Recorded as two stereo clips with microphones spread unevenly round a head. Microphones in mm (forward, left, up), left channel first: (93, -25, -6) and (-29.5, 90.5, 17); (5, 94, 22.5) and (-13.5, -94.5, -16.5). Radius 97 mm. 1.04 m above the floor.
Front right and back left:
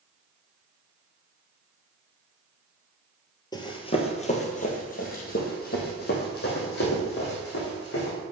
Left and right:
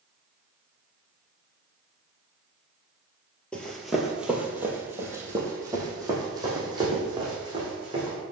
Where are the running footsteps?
20° left, 1.2 m; by 8.2 s 25° right, 3.5 m.